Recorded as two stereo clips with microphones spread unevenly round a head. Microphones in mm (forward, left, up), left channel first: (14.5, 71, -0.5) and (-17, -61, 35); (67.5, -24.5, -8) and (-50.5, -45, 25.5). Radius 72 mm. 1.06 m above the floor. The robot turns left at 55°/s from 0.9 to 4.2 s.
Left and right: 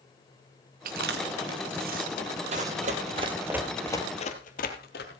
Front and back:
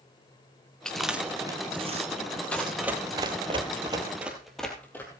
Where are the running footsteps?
75° right, 2 m; by 5.2 s 90° left, 2 m.